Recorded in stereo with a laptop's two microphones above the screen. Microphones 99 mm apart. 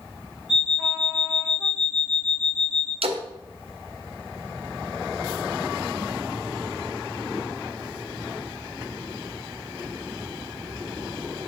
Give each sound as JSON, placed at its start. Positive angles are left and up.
{"t": 0.5, "sound": "an alarm clock", "side_deg": 0, "distance_m": 2.5}
{"t": 3.0, "sound": "a splash", "side_deg": -75, "distance_m": 0.7}